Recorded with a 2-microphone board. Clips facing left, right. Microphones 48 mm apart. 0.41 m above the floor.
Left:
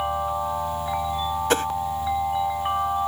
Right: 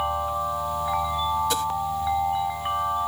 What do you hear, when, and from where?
1.5 s a whoosh: 50° left (ahead or behind)